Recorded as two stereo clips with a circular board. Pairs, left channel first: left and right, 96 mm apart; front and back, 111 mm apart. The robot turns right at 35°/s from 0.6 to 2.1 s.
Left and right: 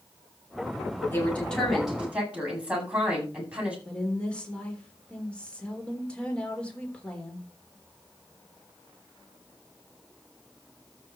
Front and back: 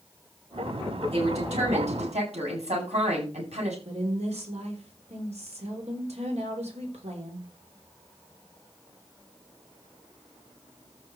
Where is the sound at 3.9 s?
165° left, 4 m.